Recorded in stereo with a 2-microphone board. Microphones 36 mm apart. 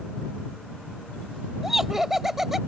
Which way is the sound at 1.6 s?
10° right (ahead or behind).